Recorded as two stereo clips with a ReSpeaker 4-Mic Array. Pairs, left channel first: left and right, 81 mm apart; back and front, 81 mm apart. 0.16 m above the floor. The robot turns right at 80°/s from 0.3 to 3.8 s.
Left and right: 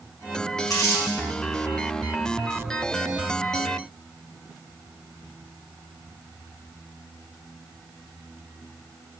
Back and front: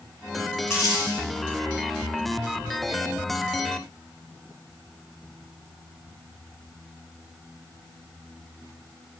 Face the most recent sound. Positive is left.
turn(degrees=10)